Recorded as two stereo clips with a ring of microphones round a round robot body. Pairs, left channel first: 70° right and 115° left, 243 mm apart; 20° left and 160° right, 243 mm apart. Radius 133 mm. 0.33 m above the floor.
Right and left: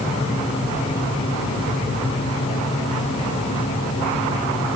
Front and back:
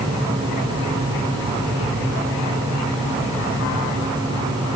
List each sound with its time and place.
Only background noise.